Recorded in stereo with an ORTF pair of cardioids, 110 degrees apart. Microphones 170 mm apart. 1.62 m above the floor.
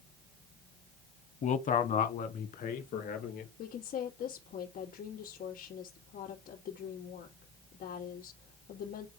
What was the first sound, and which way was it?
A man speaking, 45° left.